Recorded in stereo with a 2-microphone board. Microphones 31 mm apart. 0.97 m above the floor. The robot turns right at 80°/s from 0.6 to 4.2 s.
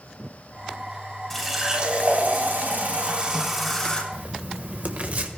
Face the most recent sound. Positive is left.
turn(degrees=-55)  # may be behind; listen again after turning